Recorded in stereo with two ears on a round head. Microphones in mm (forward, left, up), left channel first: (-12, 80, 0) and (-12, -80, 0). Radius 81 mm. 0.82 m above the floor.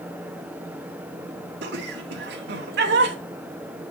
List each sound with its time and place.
1.6 s laughter: 65° right (ahead or behind), 2.0 m